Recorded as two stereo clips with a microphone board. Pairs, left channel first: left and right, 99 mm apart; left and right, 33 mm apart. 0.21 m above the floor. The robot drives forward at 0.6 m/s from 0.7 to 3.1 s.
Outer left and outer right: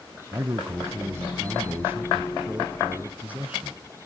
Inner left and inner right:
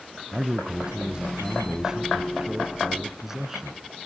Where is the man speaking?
30° right (ahead or behind), 1.2 m; by 3.8 s 15° right (ahead or behind), 2 m.